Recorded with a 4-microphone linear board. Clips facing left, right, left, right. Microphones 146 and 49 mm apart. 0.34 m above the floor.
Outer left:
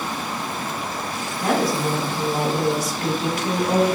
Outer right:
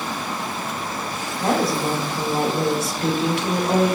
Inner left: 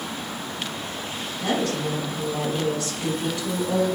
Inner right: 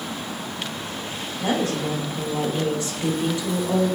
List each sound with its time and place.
1.4 s a woman speaking: 30° right (ahead or behind), 0.9 m